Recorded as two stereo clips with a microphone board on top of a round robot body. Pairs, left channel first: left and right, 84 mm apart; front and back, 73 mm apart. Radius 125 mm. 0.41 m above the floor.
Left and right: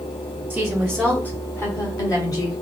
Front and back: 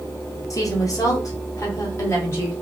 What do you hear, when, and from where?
0.5 s a woman speaking: 15° right, 1.0 m; by 2.5 s 55° left, 1.8 m